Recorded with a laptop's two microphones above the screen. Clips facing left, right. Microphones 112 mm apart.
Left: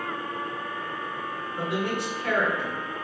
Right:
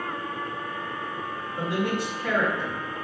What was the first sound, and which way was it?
A man speaking, 20° left (ahead or behind).